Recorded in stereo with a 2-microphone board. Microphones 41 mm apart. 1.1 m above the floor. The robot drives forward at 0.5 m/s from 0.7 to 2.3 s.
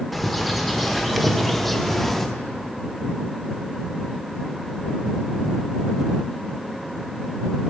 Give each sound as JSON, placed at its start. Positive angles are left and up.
{"t": 0.1, "sound": "a bird", "side_deg": 0, "distance_m": 1.0}